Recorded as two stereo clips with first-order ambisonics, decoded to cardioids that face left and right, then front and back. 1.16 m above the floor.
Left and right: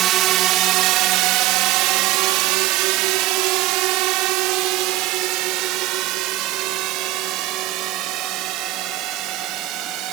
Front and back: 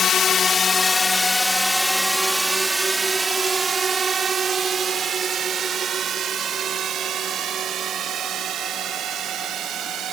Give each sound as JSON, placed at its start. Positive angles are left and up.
{"t": 0.0, "sound": "a drone", "azimuth_deg": -55}